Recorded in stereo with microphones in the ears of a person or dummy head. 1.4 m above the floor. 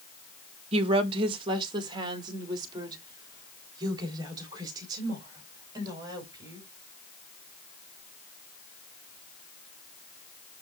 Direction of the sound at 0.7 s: 35° right (ahead or behind).